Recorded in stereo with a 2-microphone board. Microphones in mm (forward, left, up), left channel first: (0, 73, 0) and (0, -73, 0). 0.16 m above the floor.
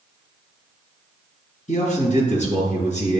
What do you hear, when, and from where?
1.7 s a man speaking: 55° left (ahead or behind), 3 m